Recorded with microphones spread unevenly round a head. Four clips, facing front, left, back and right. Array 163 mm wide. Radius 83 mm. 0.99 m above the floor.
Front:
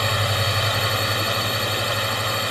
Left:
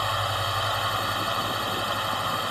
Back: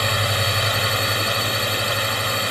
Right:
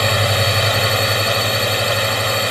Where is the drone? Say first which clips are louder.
Right 9 dB, back 1 dB; 90° right.